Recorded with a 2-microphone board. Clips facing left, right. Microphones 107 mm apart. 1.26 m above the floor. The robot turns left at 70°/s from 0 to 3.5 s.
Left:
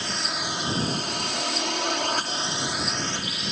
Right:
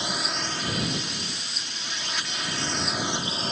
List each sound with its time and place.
0.0 s a drone: 160° right; by 3.5 s 45° right